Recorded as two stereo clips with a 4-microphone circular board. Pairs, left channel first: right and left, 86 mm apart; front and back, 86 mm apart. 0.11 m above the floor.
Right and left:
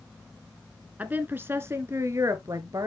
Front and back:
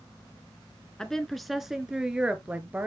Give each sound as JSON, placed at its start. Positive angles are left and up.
{"t": 1.0, "sound": "a woman speaking", "azimuth_deg": 65, "distance_m": 1.2}